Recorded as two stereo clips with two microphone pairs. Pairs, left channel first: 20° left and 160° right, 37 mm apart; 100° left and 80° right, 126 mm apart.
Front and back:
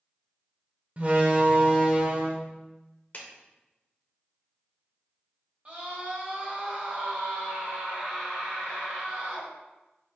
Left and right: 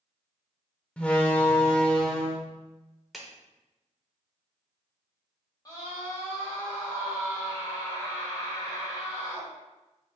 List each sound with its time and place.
1.0 s a door slam: straight behind, 0.7 m
3.1 s a clap: 10° left, 0.7 m
5.7 s a scream: 155° left, 1.6 m